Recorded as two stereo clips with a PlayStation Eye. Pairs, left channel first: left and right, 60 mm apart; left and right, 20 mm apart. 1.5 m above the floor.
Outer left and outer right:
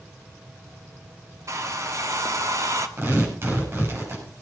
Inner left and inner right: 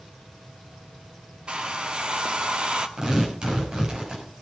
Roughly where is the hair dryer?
Right.